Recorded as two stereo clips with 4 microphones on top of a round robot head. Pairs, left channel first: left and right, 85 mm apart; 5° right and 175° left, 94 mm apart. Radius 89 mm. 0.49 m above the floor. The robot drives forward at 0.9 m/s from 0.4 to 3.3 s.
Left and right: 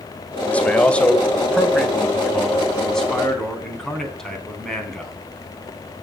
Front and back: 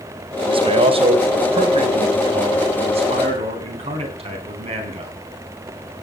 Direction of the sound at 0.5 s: 165° left.